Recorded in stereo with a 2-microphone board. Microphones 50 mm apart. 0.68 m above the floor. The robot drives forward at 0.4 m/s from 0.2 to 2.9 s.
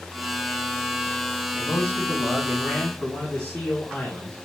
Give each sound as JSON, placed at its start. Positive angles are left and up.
{"t": 1.5, "sound": "a man speaking", "side_deg": 25, "distance_m": 5.5}